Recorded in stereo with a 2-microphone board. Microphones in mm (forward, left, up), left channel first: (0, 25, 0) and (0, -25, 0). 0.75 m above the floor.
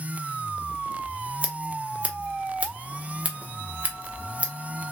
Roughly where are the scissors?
Right.